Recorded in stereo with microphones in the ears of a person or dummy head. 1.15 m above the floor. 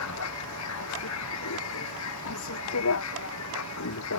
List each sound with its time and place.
0.0 s a vehicle: 80° left